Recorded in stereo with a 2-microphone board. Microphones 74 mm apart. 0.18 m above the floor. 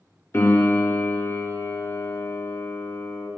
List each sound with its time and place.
0.3 s a piano: 35° left (ahead or behind), 2.5 m